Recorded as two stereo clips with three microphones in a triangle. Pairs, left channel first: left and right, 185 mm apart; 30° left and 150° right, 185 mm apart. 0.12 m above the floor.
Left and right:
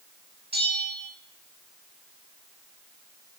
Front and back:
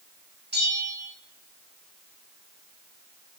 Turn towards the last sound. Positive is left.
turn(degrees=-120)